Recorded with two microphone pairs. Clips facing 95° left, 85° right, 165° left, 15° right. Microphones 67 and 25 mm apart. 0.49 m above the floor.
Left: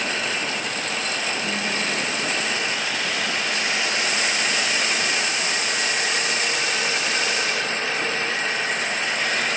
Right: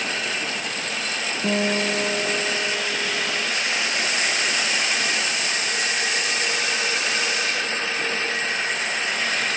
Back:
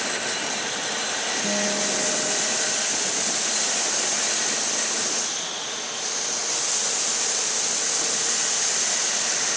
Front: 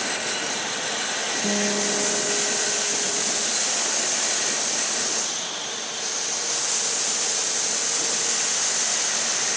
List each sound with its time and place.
1.4 s a guitar: 65° right, 3 m